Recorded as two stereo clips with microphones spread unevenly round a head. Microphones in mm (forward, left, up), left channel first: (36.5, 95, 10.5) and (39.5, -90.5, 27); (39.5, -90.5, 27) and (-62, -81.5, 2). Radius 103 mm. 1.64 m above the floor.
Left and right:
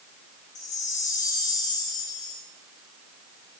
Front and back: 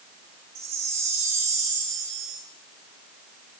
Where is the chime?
150° left, 2.5 m.